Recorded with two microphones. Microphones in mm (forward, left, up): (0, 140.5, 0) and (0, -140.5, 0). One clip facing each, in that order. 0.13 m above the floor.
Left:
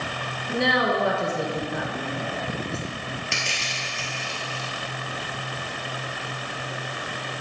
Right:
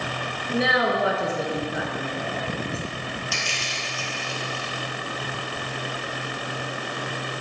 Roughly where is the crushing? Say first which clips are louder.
Right 1 dB; left.